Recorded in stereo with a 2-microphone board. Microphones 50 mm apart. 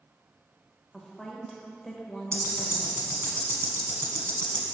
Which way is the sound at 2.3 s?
70° right (ahead or behind).